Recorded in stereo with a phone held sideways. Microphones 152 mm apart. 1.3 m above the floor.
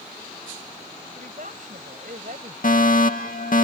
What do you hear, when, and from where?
1.1 s a woman speaking: 60° right (ahead or behind)
2.6 s a fire alarm: 65° left (ahead or behind)